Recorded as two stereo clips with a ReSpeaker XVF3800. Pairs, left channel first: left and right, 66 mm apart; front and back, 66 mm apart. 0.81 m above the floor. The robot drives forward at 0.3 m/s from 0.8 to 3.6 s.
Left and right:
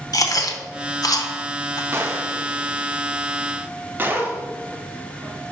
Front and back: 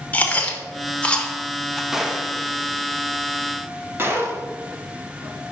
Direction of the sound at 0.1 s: 65° left.